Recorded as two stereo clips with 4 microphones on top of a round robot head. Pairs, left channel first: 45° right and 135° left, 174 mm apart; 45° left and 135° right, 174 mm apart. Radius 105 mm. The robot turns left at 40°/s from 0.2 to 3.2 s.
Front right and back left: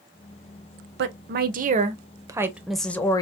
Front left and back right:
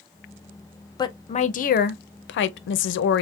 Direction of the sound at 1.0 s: 115° left.